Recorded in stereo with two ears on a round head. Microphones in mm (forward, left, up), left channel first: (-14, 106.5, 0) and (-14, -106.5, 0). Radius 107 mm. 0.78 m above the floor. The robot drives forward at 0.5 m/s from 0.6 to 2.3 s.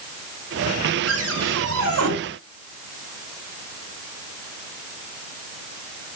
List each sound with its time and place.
1.1 s a cupboard door: 60° right (ahead or behind), 5.5 m; by 2.1 s 65° right (ahead or behind), 5.5 m